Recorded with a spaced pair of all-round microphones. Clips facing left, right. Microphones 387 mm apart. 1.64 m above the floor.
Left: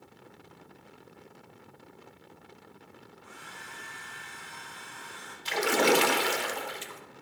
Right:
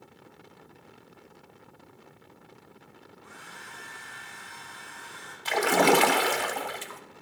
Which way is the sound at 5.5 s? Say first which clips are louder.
Right 2 dB; 65° right (ahead or behind).